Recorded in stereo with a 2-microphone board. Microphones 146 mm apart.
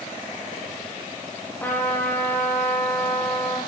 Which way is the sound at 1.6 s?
15° left (ahead or behind).